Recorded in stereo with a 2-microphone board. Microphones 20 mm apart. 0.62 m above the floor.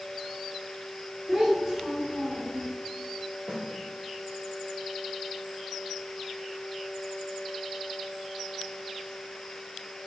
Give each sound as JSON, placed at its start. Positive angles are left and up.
{"t": 1.3, "sound": "a child speaking", "side_deg": -20, "distance_m": 1.3}
{"t": 3.5, "sound": "a snare drum", "side_deg": -50, "distance_m": 1.5}